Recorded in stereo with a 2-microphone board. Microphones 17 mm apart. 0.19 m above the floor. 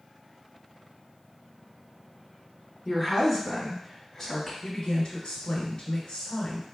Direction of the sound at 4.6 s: 50° left (ahead or behind).